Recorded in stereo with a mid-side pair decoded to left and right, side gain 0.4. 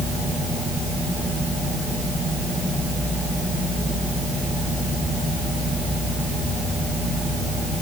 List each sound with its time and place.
Only background noise.